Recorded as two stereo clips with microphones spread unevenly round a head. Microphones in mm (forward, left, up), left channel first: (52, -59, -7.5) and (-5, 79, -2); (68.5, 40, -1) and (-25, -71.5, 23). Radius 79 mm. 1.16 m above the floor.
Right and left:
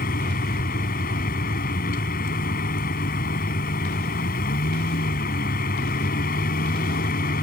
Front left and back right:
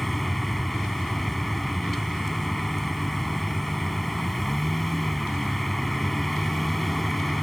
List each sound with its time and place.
0.0 s a vehicle: 40° right